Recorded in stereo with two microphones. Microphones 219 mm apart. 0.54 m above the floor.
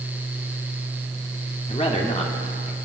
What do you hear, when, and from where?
1.7 s a man speaking: 30° left (ahead or behind), 1.2 m